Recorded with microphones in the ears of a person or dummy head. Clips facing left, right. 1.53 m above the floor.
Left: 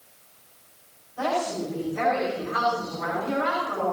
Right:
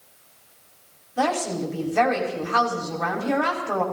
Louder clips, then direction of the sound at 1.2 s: Right 2 dB; 80° right.